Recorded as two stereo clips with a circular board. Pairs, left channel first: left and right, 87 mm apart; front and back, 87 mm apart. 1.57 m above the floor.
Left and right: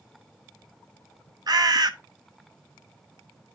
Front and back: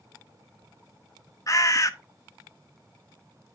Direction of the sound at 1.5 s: 50° right.